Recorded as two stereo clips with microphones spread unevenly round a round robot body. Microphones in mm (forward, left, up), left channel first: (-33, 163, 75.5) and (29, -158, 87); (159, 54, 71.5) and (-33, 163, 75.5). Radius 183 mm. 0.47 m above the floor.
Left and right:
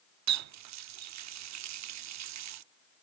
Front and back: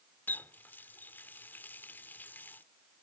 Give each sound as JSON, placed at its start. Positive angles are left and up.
{"t": 0.3, "sound": "a running tap", "azimuth_deg": -110}